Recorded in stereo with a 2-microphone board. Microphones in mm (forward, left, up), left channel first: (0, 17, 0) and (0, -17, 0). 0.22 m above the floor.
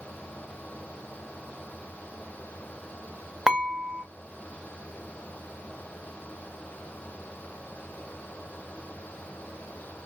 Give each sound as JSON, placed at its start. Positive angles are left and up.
{"t": 3.5, "sound": "dishes clattering", "side_deg": -15, "distance_m": 1.0}